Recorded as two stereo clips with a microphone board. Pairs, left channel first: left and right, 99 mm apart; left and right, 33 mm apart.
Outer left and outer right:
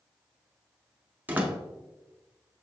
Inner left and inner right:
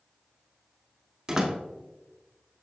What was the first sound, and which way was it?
A door slam, 20° right (ahead or behind).